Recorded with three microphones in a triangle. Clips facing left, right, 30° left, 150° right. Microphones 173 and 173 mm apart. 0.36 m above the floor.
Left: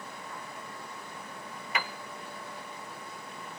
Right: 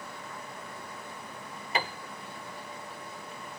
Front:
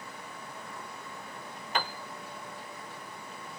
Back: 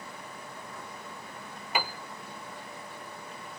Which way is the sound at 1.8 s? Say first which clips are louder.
Right 3 dB, back 1 dB; 75° right.